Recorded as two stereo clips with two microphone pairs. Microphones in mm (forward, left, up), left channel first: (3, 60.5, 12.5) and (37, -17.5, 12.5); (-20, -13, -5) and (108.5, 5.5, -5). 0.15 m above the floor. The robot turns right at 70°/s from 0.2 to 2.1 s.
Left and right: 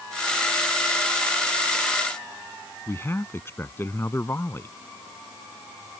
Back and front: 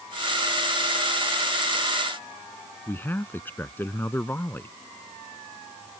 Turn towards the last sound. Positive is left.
turn(degrees=125)